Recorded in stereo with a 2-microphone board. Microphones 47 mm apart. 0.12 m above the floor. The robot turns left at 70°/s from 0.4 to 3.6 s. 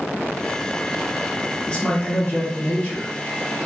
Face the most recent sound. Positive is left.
turn(degrees=20)  # may be behind; listen again after turning